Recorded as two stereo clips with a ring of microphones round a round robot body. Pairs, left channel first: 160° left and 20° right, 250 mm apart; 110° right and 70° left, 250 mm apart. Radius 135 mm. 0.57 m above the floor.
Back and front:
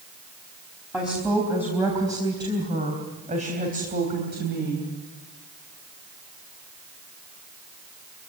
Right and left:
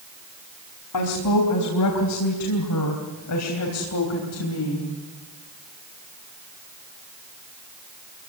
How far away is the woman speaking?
About 4 m.